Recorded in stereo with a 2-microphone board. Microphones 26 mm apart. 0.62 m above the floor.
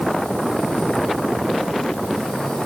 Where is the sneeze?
I don't hear a sneeze.